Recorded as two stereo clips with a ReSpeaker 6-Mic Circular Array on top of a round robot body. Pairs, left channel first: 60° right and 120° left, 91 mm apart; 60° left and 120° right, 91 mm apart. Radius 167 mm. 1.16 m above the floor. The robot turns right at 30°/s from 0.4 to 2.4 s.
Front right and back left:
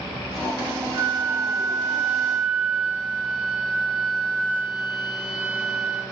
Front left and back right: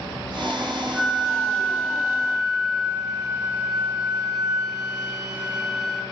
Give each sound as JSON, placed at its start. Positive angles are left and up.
{"t": 0.9, "sound": "a flute", "azimuth_deg": 150, "distance_m": 1.3}